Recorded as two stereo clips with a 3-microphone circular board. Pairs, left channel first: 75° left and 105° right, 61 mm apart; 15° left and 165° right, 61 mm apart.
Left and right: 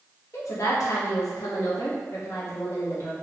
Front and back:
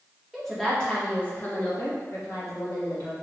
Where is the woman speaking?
105° left, 1.2 m; by 3.1 s 30° left, 1.5 m.